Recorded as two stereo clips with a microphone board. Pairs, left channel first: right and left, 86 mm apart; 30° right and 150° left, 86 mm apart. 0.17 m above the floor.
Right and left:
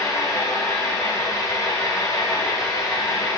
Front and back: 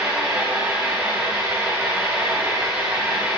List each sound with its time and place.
0.0 s an engine running: 140° right, 3 m